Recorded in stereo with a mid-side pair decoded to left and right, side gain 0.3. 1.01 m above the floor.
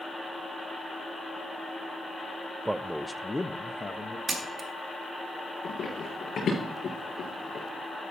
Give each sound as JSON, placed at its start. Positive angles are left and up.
{"t": 2.6, "sound": "a man speaking", "azimuth_deg": -25, "distance_m": 0.6}
{"t": 4.3, "sound": "a camera shutter", "azimuth_deg": -55, "distance_m": 1.8}
{"t": 5.6, "sound": "running footsteps", "azimuth_deg": 70, "distance_m": 5.0}